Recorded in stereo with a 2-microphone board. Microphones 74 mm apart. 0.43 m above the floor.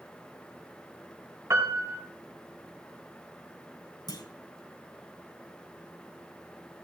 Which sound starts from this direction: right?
A piano, at 1.5 s.